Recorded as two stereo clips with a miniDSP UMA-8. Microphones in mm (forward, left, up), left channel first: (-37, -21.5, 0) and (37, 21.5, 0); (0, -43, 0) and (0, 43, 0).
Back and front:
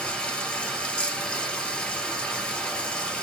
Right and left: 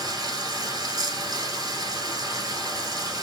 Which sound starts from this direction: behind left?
Running water, at 0.0 s.